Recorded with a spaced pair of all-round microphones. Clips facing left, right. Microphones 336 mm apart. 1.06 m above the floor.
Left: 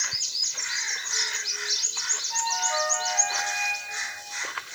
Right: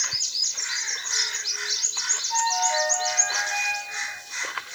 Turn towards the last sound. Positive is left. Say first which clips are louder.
# right 4 dB
turn(degrees=15)  # may be behind; listen again after turning